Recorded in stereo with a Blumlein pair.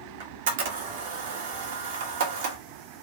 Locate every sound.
0.2 s a camera shutter: 55° right, 0.9 m